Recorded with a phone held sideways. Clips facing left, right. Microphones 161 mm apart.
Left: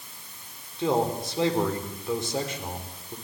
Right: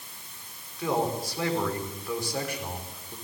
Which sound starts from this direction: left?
A man speaking, at 0.8 s.